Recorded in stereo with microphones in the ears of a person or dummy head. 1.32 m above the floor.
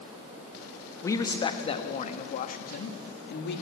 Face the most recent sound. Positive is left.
turn(degrees=60)  # may be behind; listen again after turning